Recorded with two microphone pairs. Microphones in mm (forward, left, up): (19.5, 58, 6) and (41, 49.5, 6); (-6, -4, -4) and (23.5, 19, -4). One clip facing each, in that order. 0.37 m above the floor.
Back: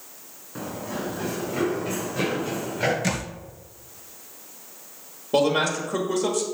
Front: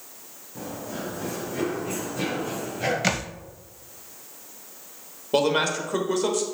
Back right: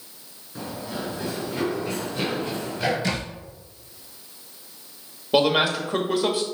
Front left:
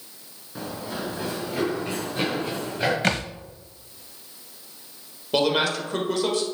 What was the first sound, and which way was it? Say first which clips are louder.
Running footsteps: back 2 dB, even; 115° left.